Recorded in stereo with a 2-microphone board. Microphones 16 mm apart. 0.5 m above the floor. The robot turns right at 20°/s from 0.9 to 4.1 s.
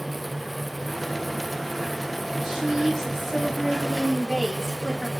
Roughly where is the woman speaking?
Ahead right.